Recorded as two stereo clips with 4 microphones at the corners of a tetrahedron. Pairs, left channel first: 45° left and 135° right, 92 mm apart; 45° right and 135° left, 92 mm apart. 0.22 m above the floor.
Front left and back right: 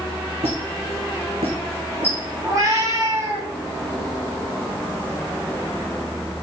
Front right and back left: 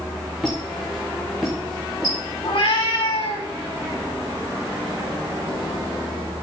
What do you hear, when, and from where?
0.4 s a squeak: 135° right, 4.5 m
2.4 s a cat meowing: 80° right, 3.5 m